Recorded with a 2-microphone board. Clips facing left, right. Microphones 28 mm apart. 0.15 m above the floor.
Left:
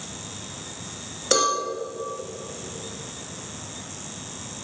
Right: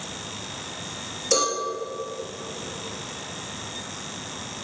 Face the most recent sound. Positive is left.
turn(degrees=50)  # may be behind; listen again after turning